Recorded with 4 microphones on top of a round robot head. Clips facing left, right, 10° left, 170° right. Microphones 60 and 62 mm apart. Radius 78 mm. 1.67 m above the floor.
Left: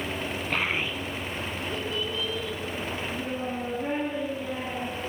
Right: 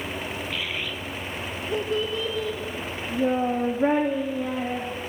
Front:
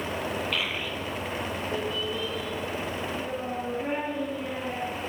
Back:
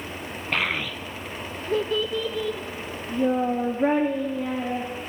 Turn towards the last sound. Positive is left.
turn(degrees=-125)